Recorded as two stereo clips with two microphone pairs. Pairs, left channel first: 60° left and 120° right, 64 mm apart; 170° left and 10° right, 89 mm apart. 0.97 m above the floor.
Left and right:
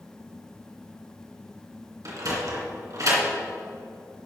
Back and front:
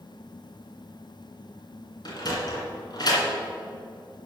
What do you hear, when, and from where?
2.0 s a sliding door: 150° right, 2.5 m